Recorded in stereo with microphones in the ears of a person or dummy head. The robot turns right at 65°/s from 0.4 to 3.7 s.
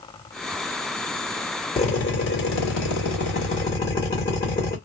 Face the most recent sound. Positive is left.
turn(degrees=160)